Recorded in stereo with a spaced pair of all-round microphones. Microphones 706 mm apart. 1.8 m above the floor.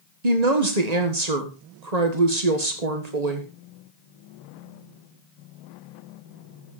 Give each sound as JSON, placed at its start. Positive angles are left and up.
{"t": 0.2, "sound": "a woman speaking", "side_deg": -65, "distance_m": 1.7}